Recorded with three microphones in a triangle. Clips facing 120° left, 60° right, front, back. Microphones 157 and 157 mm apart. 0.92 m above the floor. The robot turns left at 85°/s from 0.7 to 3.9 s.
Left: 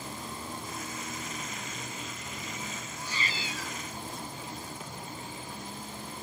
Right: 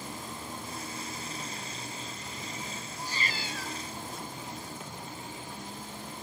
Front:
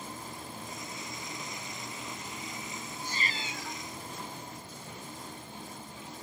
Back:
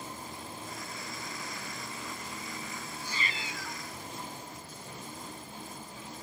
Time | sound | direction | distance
3.0 | a cat meowing | 15° right | 1.2 m